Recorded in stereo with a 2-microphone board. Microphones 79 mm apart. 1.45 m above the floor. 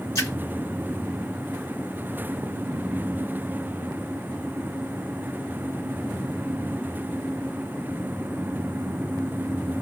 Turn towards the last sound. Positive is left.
turn(degrees=35)  # may be behind; listen again after turning